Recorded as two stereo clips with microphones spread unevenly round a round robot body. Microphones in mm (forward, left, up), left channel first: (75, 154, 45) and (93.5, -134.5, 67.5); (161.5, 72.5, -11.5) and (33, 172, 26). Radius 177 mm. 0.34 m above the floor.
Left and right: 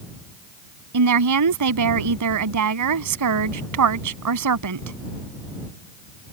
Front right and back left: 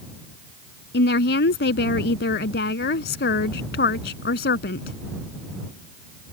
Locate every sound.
0.9 s a woman speaking: 65° right